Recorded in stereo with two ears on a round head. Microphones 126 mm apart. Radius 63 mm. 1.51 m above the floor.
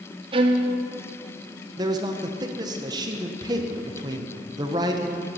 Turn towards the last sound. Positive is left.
turn(degrees=-30)  # may be behind; listen again after turning